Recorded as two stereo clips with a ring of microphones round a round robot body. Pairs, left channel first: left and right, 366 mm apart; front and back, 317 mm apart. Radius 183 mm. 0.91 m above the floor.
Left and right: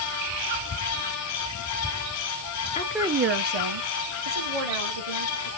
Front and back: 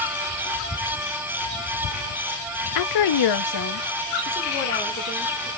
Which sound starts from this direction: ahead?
A woman speaking, at 2.8 s.